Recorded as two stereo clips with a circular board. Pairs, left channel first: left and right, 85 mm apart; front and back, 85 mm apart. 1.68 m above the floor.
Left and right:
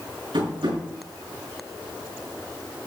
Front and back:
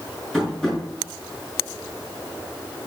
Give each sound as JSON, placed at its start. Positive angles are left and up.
{"t": 0.3, "sound": "tapping", "azimuth_deg": -85, "distance_m": 6.5}